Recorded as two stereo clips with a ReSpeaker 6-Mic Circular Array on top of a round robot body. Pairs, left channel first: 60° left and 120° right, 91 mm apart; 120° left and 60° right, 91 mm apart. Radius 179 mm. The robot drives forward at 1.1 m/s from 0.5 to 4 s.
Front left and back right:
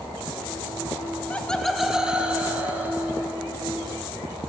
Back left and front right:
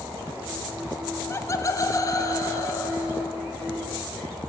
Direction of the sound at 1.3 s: 115° left.